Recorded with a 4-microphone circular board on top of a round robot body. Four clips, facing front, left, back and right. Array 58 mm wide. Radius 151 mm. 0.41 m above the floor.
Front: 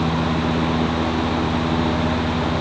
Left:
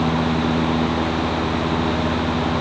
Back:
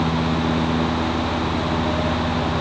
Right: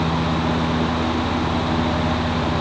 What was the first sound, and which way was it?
Only background noise.